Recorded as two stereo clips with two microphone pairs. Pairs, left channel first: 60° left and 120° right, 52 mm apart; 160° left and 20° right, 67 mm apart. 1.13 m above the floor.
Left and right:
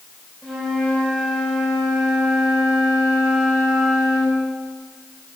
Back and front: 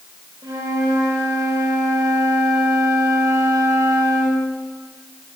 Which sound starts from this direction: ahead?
A flute, at 0.4 s.